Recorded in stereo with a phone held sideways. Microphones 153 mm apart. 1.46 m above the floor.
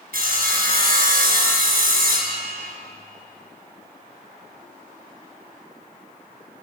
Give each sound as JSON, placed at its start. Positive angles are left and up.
{"t": 0.1, "sound": "sawing", "side_deg": -70, "distance_m": 4.5}